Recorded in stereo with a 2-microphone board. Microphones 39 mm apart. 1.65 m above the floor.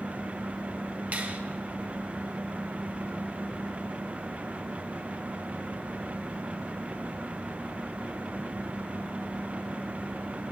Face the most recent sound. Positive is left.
turn(degrees=-45)  # may be behind; listen again after turning